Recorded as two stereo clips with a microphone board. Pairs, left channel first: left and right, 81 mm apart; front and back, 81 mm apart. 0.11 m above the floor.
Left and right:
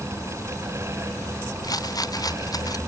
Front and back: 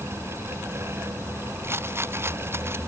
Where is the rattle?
125° left.